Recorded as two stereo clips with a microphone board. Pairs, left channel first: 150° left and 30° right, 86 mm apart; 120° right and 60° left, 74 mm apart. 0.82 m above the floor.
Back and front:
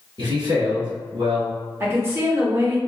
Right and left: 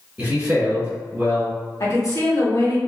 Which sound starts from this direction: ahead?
A man speaking, at 0.2 s.